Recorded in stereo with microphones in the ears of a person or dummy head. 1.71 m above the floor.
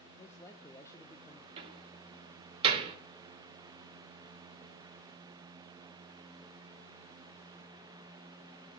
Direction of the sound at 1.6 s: 30° right (ahead or behind).